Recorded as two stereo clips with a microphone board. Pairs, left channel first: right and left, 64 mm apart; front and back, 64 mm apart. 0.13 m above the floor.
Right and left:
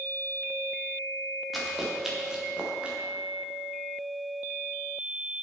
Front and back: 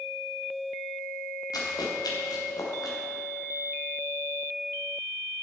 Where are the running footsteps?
Straight ahead, 3.5 m; by 3.0 s 20° left, 3.5 m.